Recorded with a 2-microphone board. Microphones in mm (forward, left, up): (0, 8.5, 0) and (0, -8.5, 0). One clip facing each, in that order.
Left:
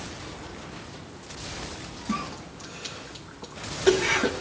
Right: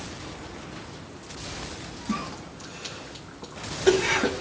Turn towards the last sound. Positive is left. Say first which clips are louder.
# even
turn(degrees=5)  # may be behind; listen again after turning